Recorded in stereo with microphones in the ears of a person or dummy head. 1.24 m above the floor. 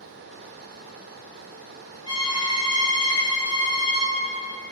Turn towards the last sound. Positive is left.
turn(degrees=30)  # may be behind; listen again after turning